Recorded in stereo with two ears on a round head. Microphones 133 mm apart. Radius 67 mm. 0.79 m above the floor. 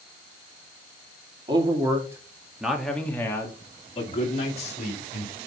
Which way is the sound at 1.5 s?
30° right (ahead or behind).